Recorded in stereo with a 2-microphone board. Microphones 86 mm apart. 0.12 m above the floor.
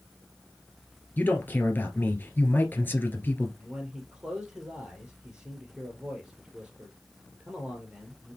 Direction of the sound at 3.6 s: 10° right (ahead or behind).